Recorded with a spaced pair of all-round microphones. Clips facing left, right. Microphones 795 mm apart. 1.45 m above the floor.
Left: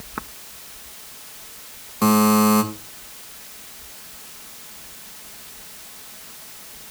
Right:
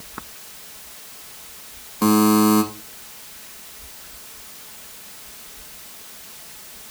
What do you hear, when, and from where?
2.0 s a buzzer: 20° left (ahead or behind), 1.4 m